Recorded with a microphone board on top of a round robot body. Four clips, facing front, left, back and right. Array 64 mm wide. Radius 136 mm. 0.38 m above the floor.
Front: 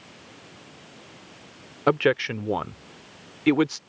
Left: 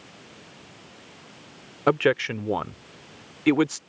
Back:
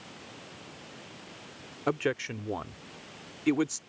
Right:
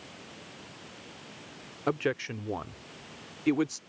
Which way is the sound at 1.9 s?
45° left.